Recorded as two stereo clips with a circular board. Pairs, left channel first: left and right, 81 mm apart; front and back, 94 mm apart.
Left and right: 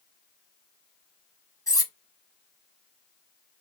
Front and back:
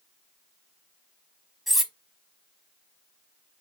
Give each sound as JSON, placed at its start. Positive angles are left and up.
{"t": 1.7, "sound": "cutlery clinking", "azimuth_deg": 90, "distance_m": 0.7}